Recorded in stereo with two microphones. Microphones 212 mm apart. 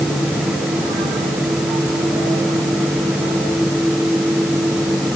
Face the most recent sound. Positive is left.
No sound to turn to.